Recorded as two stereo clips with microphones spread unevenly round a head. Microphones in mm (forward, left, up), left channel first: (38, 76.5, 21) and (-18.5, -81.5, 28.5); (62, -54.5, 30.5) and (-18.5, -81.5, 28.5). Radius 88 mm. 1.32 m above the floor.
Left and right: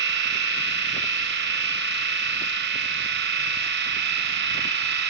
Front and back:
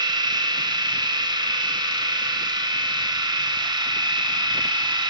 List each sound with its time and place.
0.0 s a machine running: 130° right, 1.3 m